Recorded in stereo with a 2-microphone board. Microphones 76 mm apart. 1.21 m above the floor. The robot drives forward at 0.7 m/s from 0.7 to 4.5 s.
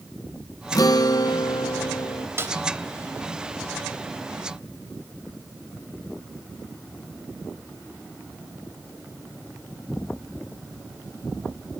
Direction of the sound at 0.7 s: 55° left (ahead or behind).